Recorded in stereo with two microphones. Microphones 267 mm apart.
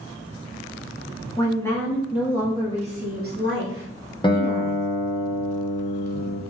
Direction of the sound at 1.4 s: 15° left (ahead or behind).